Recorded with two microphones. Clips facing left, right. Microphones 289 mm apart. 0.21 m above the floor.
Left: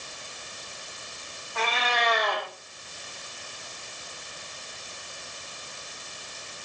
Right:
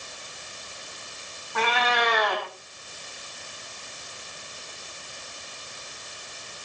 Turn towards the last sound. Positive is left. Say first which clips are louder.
# right 4 dB
turn(degrees=-75)  # may be behind; listen again after turning